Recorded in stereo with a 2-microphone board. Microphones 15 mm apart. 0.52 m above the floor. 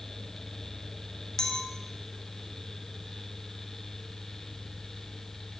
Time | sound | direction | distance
1.4 | a clink | 35° left (ahead or behind) | 0.5 m